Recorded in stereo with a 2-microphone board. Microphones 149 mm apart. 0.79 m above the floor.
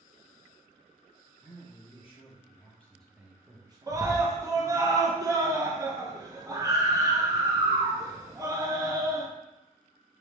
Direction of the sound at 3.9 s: 20° right (ahead or behind).